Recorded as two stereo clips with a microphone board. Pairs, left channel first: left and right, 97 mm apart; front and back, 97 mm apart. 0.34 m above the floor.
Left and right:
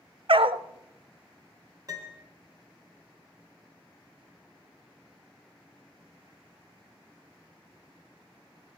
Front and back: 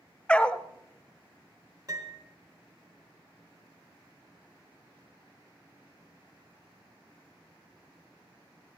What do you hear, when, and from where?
0.3 s a dog barking: 75° right, 0.6 m
1.9 s a piano: 135° right, 2 m